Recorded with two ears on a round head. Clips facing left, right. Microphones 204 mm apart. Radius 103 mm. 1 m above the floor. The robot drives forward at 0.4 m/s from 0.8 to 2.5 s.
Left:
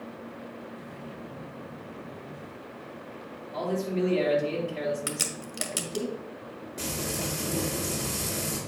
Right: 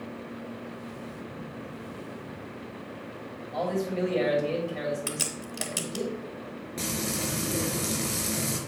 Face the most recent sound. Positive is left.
turn(degrees=-25)  # may be behind; listen again after turning